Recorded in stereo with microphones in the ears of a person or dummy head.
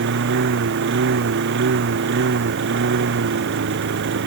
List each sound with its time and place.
0.0 s a lawn mower: 60° right (ahead or behind)